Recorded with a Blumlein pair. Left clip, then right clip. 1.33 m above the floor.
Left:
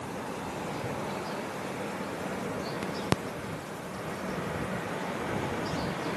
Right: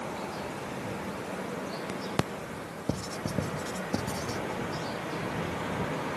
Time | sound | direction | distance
2.9 | writing | 35° right | ?